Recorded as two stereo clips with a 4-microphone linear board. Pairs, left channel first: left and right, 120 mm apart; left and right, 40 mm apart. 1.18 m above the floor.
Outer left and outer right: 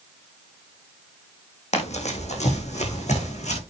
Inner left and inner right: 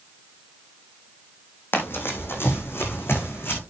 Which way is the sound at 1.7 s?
70° left (ahead or behind).